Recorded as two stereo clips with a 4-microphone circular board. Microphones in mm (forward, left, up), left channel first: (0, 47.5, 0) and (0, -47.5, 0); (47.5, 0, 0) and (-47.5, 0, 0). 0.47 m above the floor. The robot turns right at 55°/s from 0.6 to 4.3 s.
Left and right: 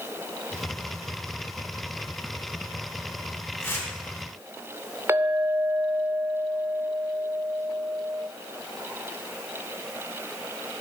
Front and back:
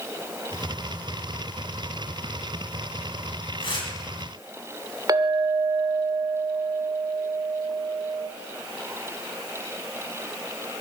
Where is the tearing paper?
25° left, 3 m; by 3.9 s 40° left, 3 m.